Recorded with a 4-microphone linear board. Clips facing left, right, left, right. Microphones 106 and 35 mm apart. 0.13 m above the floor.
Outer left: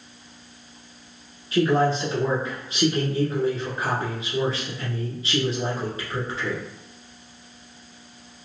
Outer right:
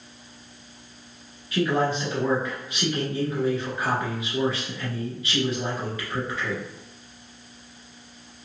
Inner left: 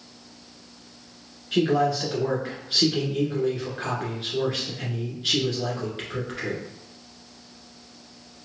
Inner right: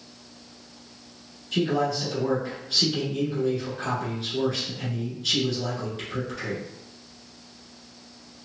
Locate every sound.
1.5 s a man speaking: 30° left (ahead or behind), 1.5 m